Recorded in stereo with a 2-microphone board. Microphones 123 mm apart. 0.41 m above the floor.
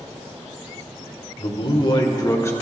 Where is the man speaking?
50° left (ahead or behind), 1.3 m; by 2.5 s 20° left (ahead or behind), 0.9 m.